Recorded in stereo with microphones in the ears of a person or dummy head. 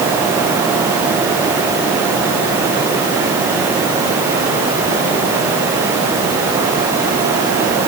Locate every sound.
Only background noise.